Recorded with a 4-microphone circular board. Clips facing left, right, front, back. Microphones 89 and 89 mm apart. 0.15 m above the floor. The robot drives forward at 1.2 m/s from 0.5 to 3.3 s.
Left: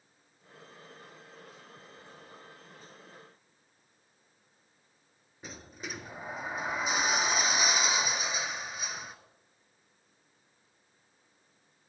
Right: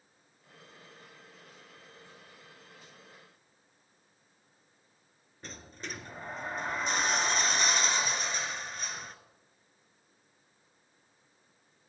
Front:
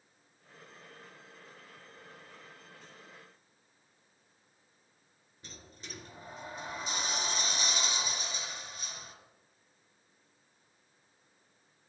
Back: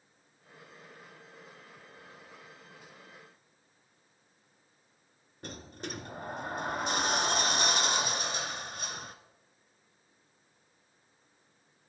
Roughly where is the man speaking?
I don't hear a man speaking.